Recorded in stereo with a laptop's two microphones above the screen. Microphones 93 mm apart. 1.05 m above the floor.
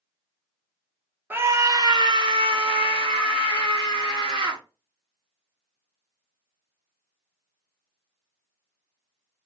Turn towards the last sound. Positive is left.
turn(degrees=-80)